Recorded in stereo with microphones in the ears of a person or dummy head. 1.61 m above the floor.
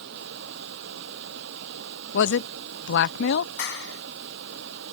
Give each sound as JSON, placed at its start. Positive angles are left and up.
{"t": 0.0, "sound": "running water", "side_deg": -65}
{"t": 2.1, "sound": "a man speaking", "side_deg": 70}
{"t": 3.6, "sound": "a clap", "side_deg": 85}